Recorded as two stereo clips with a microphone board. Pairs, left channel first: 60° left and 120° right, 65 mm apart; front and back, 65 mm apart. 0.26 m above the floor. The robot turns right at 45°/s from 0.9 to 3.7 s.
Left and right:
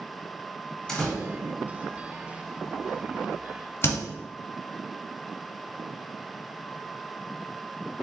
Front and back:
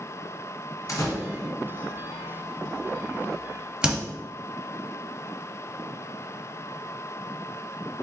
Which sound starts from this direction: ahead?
A door slam, at 0.9 s.